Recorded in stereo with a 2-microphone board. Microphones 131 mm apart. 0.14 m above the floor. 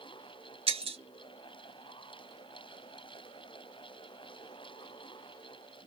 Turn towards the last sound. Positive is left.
turn(degrees=-50)  # may be behind; listen again after turning